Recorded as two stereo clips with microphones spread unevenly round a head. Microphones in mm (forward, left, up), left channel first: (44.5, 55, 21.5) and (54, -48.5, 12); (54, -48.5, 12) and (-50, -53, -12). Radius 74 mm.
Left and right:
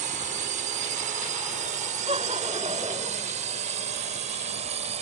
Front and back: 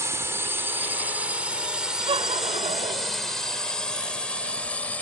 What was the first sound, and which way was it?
A drone, 110° right.